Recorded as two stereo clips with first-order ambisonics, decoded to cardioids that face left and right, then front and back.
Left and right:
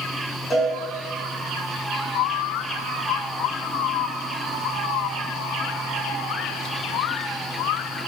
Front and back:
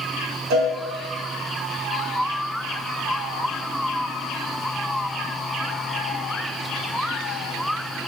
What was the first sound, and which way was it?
A cowbell, 165° left.